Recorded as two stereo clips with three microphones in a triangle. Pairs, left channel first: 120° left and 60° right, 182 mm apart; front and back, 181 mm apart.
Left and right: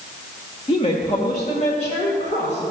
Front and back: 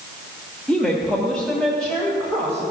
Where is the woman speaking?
85° left, 1.3 m.